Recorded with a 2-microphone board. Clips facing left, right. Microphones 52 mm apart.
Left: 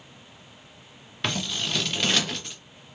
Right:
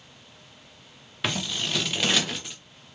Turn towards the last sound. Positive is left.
turn(degrees=-5)  # may be behind; listen again after turning